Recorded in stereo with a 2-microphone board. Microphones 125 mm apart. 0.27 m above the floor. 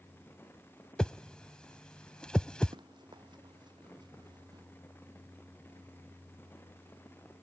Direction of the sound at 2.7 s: 35° right (ahead or behind).